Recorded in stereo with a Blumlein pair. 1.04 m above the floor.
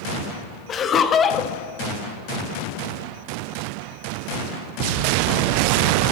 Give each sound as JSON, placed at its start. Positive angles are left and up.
{"t": 0.7, "sound": "laughter", "azimuth_deg": 25, "distance_m": 0.8}